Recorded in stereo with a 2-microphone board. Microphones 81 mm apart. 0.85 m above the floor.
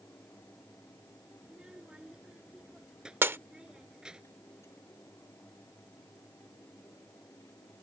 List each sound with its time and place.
1.4 s a child speaking: 10° right (ahead or behind)
3.2 s breaking glass: 30° right (ahead or behind)